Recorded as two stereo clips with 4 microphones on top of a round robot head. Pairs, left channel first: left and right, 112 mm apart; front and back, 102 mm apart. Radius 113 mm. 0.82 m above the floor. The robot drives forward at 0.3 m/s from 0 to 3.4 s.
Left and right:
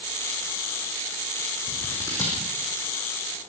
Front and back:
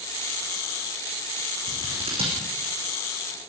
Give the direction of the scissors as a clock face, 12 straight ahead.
7 o'clock.